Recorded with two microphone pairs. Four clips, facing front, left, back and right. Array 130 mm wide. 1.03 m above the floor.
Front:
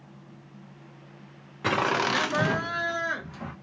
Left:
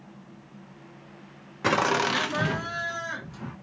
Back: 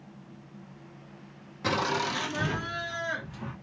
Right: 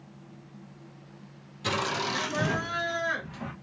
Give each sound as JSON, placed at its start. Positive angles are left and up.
{"t": 1.6, "sound": "laughter", "azimuth_deg": 75, "distance_m": 0.6}